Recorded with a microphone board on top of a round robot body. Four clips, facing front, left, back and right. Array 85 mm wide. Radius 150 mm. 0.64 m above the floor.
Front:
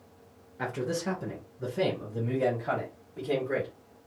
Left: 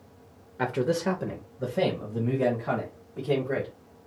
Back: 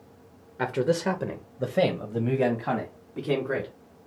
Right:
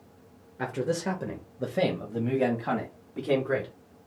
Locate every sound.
0.6 s a man speaking: 145° left, 0.8 m; by 3.7 s 135° right, 2 m